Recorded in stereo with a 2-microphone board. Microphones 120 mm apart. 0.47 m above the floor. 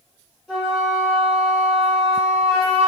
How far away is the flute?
About 1.5 m.